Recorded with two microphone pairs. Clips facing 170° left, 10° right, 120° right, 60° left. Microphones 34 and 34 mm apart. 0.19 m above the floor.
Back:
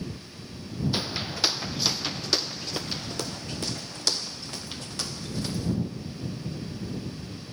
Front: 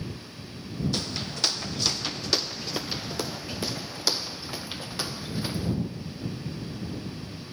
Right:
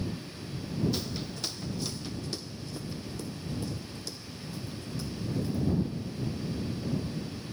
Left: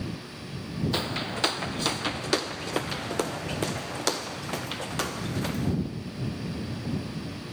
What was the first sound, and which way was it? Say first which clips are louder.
Footsteps: back 1 dB, left 6 dB; 95° left.